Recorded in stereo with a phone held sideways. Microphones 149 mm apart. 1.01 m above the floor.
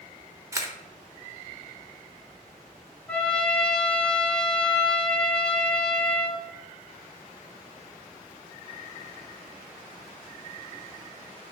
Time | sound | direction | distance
0.5 | a camera shutter | 20° right (ahead or behind) | 0.9 m
3.1 | a trumpet | 5° left (ahead or behind) | 1.7 m